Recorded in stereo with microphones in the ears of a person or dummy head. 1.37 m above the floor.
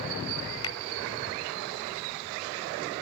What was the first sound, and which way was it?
A finger snap, 20° left (ahead or behind).